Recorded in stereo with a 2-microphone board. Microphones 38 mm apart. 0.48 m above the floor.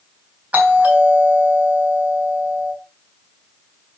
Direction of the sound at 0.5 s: 40° right (ahead or behind).